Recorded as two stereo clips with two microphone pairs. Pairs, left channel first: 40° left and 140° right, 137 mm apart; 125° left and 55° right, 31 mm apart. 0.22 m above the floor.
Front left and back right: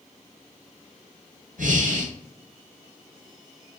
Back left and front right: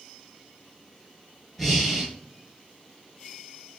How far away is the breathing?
About 1.0 m.